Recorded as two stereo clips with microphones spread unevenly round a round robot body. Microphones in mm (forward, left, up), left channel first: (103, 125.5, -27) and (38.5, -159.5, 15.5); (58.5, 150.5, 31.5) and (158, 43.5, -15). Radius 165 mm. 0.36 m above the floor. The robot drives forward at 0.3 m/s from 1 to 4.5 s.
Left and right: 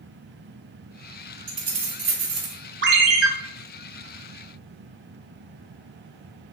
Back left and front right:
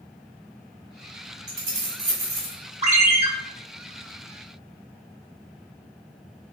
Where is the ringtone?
50° right, 1.1 m; by 3.3 s 60° right, 1.0 m.